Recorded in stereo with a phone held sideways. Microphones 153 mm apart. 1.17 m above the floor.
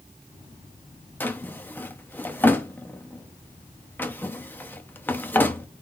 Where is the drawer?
10° left (ahead or behind), 0.6 m.